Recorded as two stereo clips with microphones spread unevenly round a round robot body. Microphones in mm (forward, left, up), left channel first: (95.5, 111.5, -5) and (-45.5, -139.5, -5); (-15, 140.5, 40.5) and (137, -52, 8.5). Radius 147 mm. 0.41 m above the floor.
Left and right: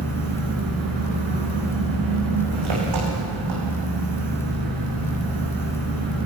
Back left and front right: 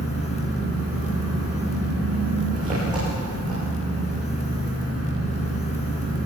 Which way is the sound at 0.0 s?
130° right.